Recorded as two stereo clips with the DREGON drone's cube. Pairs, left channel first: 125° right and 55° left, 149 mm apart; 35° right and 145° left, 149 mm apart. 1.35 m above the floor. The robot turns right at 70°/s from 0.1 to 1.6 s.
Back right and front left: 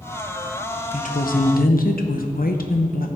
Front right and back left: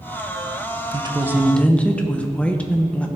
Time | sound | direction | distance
0.9 | a woman speaking | 160° right | 0.9 m